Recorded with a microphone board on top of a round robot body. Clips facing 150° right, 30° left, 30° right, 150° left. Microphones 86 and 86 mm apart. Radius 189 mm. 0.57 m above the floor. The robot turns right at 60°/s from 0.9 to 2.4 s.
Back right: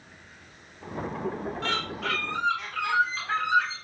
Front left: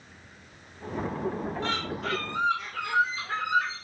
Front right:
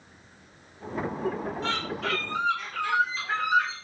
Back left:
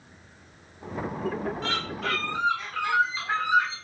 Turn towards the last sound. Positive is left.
turn(degrees=-140)